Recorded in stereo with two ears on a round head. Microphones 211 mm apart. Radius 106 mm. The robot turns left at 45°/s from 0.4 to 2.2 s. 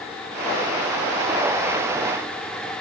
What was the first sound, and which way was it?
Only background noise.